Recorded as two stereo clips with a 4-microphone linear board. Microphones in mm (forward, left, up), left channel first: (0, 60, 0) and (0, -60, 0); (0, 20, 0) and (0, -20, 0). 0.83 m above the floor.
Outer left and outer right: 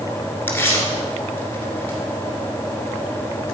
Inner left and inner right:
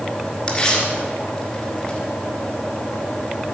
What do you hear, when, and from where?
0.5 s tearing paper: 20° left (ahead or behind), 2.5 m